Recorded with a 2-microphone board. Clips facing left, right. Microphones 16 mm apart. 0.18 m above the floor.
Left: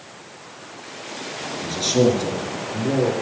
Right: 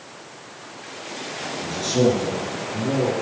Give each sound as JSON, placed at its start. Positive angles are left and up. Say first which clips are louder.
{"t": 1.6, "sound": "a man speaking", "louder": "left 2 dB", "side_deg": 30, "distance_m": 2.5}